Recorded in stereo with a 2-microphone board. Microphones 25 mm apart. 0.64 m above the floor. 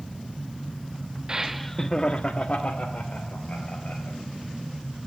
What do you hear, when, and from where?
1.3 s laughter: 25° right (ahead or behind), 0.6 m; by 4.2 s 60° left (ahead or behind), 3 m